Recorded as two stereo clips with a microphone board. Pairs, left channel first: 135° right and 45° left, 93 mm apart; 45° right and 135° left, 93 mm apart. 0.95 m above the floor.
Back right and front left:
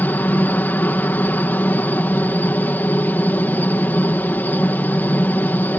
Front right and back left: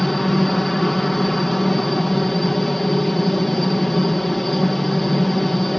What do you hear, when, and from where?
0.0 s a helicopter: 130° right